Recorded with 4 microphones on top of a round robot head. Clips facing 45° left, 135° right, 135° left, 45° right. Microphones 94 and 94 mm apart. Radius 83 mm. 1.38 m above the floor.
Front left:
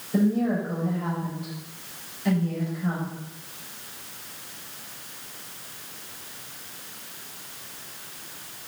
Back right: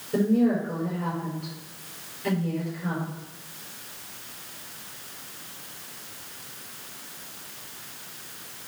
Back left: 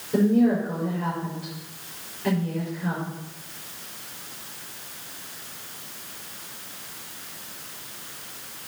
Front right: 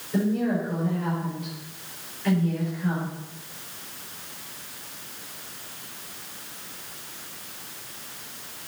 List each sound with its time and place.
0.1 s a woman speaking: 170° right, 5.5 m